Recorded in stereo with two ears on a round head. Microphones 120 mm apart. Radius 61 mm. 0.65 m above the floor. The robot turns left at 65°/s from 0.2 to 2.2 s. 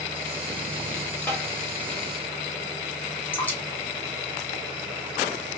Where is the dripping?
15° left (ahead or behind), 1.3 m.